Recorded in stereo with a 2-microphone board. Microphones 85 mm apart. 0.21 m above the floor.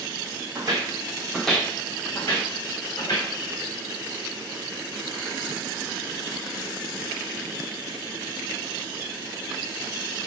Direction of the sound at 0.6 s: 55° right (ahead or behind).